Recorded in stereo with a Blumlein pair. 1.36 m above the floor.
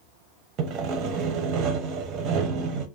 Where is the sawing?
35° right, 0.7 m.